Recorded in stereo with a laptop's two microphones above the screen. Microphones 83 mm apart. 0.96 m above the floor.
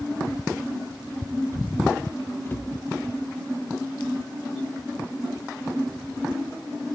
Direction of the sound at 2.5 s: 25° left (ahead or behind).